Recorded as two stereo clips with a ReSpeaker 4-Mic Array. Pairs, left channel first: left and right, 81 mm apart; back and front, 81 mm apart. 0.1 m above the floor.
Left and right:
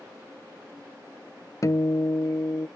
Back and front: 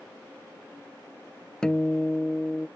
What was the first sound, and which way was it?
A guitar, 105° left.